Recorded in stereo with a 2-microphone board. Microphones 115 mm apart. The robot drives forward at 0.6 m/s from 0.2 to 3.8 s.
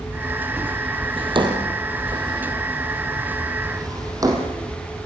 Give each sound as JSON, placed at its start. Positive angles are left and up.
{"t": 1.2, "sound": "a drawer", "side_deg": -45, "distance_m": 3.0}